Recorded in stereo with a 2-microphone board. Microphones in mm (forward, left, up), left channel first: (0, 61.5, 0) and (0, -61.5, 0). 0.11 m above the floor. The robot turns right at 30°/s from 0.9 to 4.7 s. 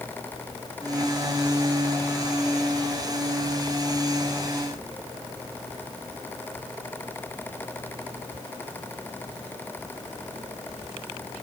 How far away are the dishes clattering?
No dishes clattering in this recording.